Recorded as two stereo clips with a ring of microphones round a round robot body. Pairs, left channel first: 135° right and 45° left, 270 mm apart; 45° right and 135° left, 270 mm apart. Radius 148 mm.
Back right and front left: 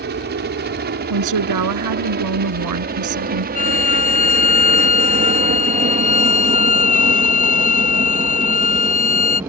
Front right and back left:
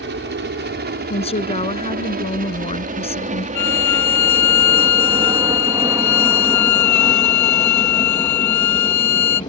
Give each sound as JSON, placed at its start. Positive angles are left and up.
{"t": 0.0, "sound": "a helicopter", "azimuth_deg": 90}
{"t": 1.1, "sound": "a woman speaking", "azimuth_deg": 25}
{"t": 3.5, "sound": "a violin", "azimuth_deg": -70}